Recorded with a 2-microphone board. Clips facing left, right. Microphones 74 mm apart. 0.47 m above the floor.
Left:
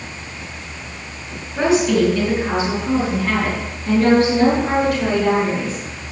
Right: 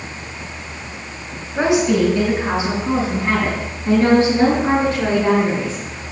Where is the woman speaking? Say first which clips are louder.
Even; 30° right (ahead or behind), 5 m; by 5.8 s 35° right (ahead or behind), 9 m.